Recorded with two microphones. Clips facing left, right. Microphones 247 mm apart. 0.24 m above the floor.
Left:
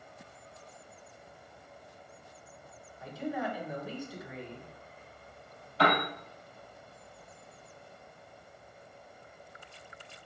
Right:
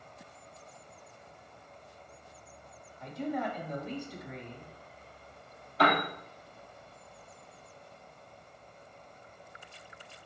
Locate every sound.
3.0 s a man speaking: 5° left (ahead or behind), 1.3 m
5.8 s a piano: centre (ahead or behind), 2.5 m